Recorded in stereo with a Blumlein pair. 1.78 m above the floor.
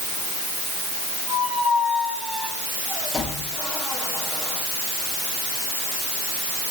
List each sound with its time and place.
1.3 s a squeak: 10° left, 6.5 m